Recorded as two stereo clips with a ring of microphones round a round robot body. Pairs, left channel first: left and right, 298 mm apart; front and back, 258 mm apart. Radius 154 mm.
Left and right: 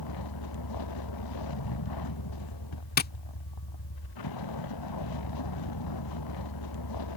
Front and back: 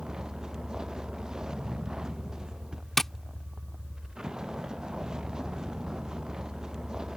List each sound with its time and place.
0.0 s a vehicle: 95° left
3.0 s tapping: 90° left